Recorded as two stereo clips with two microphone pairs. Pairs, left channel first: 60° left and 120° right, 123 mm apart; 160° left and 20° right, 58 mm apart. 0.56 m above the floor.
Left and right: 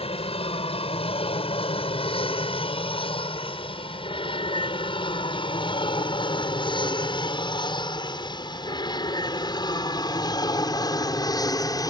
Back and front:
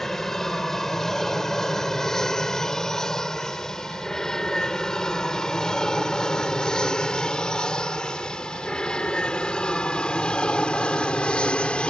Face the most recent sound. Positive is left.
turn(degrees=100)